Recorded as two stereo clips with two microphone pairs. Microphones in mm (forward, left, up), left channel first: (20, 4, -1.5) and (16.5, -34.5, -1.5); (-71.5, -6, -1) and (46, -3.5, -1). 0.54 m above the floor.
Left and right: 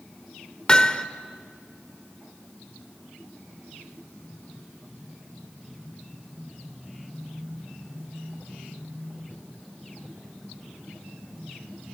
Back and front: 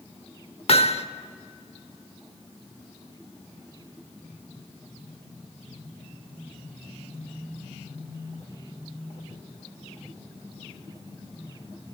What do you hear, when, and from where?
0.7 s hammering: 155° left, 0.9 m